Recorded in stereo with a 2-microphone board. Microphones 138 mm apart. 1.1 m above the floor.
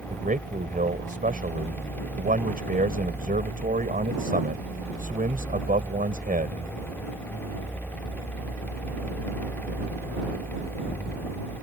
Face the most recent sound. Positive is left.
turn(degrees=-75)  # may be behind; listen again after turning